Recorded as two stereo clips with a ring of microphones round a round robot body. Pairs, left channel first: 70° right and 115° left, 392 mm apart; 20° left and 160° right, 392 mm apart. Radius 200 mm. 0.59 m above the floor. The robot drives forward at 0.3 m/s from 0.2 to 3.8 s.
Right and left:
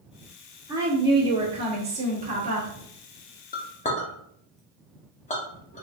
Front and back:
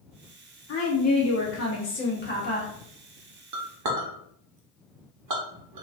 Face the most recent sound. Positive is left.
turn(degrees=-135)